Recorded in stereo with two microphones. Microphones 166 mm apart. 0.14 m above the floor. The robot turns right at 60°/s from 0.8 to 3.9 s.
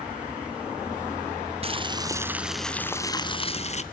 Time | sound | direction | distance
1.6 | boiling | 55° right | 1.0 m